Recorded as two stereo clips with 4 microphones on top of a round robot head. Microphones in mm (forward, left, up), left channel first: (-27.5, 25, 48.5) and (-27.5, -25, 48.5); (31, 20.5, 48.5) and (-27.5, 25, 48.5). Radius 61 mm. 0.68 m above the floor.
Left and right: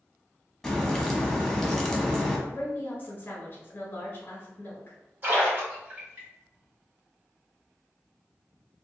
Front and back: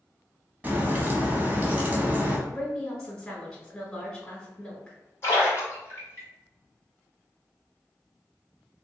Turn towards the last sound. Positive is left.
turn(degrees=-40)